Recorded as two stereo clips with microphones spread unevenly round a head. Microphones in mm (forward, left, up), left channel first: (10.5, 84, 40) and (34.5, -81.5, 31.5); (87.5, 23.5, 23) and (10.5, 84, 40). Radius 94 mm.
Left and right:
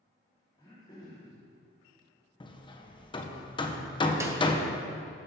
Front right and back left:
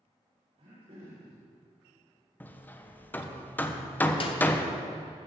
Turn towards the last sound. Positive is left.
turn(degrees=-10)